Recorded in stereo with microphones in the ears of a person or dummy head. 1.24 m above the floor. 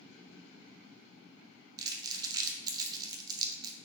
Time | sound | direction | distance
1.8 | crumpling | 20° right (ahead or behind) | 0.8 m